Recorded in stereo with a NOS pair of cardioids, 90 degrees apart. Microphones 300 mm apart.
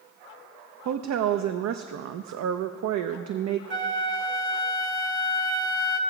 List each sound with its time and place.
0.8 s a woman speaking: 65° right, 0.7 m
3.7 s a flute: 45° right, 1.2 m